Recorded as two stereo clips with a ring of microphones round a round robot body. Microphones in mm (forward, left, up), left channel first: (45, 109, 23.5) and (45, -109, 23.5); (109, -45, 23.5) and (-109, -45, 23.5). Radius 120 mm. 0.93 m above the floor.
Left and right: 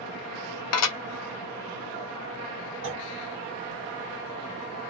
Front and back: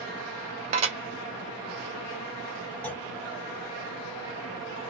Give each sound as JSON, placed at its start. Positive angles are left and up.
{"t": 0.7, "sound": "dishes clattering", "azimuth_deg": 115, "distance_m": 0.7}
{"t": 2.8, "sound": "a clunk", "azimuth_deg": -80, "distance_m": 1.4}